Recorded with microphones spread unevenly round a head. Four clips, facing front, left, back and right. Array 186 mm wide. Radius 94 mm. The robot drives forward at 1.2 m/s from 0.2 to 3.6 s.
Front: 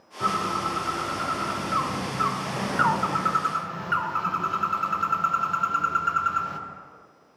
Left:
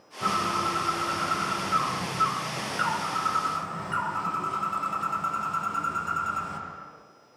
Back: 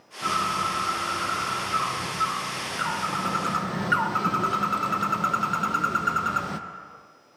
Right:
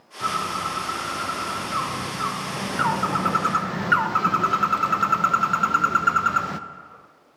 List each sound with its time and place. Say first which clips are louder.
0.2 s a bird: even, even; 10° right, 3.5 m; by 6.6 s 130° right, 0.7 m